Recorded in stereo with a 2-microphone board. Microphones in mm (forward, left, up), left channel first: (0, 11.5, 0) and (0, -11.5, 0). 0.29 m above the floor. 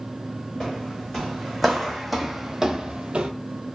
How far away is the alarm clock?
No alarm clock in this recording.